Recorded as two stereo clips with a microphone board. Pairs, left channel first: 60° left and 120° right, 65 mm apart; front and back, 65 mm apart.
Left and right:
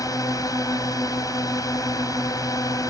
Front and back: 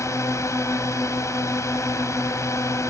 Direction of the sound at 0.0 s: 40° left.